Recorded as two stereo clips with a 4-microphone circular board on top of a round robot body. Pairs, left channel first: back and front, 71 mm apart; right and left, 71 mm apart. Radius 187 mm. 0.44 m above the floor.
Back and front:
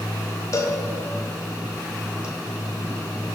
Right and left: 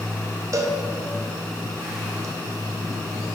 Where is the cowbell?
135° left, 0.8 m.